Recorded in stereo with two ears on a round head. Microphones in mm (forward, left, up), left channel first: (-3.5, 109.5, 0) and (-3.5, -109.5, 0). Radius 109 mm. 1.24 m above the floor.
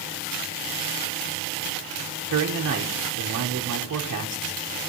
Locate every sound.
2.3 s a man speaking: 50° right (ahead or behind), 1.1 m